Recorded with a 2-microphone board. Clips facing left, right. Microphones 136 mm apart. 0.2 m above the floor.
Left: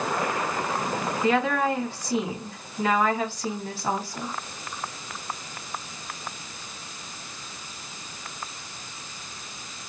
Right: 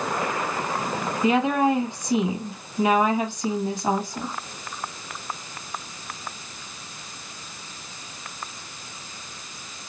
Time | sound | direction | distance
1.2 | a woman speaking | 15° right (ahead or behind) | 1.4 m